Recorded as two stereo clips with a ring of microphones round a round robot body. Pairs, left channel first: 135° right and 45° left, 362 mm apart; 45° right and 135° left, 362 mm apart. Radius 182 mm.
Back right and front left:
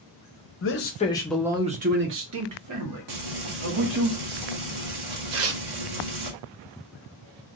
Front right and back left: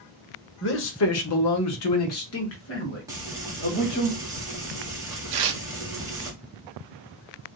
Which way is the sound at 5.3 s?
100° left.